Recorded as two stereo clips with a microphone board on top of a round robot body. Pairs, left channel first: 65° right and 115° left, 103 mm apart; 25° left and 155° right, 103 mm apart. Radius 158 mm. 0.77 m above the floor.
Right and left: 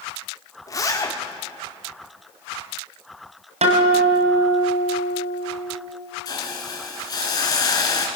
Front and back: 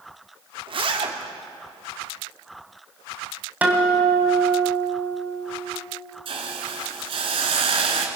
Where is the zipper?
125° right, 2 m.